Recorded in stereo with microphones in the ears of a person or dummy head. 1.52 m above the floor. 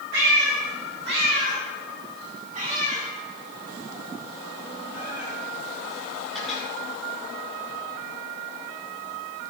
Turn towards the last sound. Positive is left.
turn(degrees=0)  # may be behind; listen again after turning